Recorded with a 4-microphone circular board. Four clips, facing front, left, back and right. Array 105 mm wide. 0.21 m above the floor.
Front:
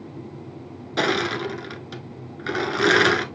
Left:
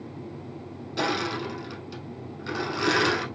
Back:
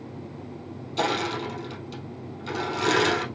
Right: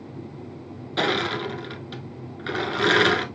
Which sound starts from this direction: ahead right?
Crushing, at 1.0 s.